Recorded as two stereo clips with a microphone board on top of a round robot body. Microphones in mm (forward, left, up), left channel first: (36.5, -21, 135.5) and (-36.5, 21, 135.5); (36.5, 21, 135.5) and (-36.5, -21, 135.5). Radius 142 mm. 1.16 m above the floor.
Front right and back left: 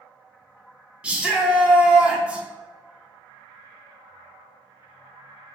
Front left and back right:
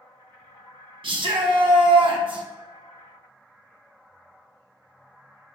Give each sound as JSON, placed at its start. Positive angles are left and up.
{"t": 1.0, "sound": "a shout", "azimuth_deg": -135, "distance_m": 1.1}